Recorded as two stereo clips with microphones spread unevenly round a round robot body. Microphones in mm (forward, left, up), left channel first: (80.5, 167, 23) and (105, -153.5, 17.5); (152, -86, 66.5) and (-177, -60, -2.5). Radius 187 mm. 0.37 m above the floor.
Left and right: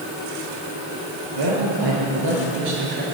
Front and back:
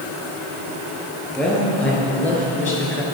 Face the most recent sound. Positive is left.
turn(degrees=-85)